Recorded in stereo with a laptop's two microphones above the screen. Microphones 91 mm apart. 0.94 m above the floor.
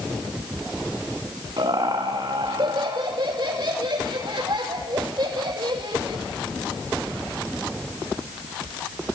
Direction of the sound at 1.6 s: 60° right (ahead or behind).